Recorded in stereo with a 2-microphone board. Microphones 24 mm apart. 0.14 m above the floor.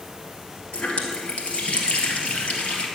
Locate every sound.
0.7 s a running tap: 65° left (ahead or behind), 2 m